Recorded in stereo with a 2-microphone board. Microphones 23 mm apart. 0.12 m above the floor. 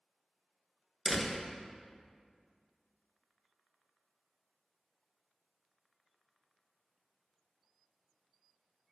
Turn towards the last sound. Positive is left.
turn(degrees=0)  # may be behind; listen again after turning